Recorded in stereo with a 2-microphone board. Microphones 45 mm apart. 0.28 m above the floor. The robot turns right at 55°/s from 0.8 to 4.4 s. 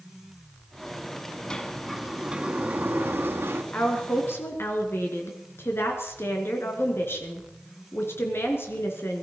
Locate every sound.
1.5 s a sliding door: 165° left, 1.8 m; by 3.6 s 80° right, 1.8 m
3.7 s a woman speaking: 45° left, 3.5 m; by 9.2 s 80° left, 3.5 m